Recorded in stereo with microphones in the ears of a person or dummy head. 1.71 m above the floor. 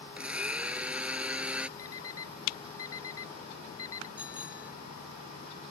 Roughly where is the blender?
Centre.